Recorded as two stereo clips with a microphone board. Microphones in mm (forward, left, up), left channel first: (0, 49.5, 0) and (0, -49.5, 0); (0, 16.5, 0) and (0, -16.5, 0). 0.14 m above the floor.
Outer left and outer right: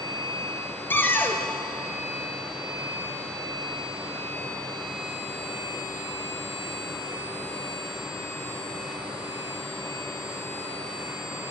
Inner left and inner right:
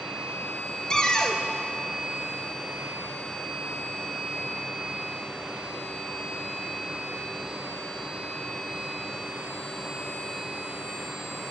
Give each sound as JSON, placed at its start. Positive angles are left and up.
{"t": 0.9, "sound": "a cupboard door", "side_deg": 20, "distance_m": 0.9}